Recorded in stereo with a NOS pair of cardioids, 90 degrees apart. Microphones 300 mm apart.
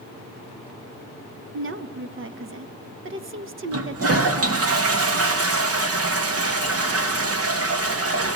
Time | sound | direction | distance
1.5 | a woman speaking | 40° right | 1.4 m
3.7 | a toilet flushing | 50° right | 2.5 m